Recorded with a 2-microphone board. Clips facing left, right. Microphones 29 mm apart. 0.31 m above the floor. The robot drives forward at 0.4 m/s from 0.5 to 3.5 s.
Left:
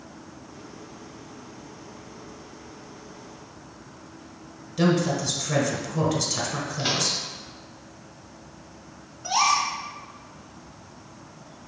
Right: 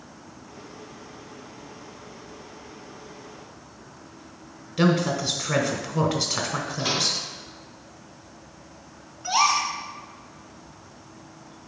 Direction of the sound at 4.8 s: 20° right (ahead or behind).